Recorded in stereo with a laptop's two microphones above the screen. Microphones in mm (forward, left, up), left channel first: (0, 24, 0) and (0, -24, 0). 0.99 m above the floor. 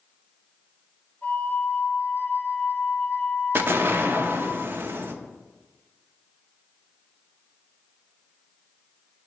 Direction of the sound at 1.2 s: 40° left (ahead or behind).